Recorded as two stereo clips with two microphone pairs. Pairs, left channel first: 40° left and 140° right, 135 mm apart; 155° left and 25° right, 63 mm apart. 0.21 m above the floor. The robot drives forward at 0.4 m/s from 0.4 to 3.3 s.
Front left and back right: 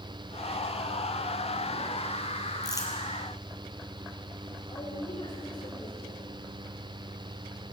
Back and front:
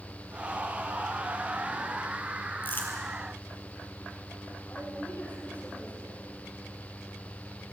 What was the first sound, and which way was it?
Crumpling, 100° left.